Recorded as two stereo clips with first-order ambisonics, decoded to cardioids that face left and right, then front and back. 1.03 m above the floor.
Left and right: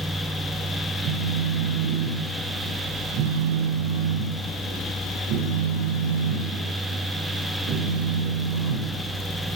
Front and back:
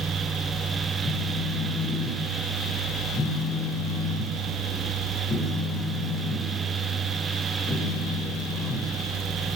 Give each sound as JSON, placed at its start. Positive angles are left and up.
{"t": 1.0, "sound": "a phone buzzing", "azimuth_deg": -70, "distance_m": 3.5}